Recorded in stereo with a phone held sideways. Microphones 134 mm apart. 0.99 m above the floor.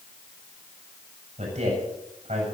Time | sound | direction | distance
1.4 | a man speaking | 60° right (ahead or behind) | 7.5 m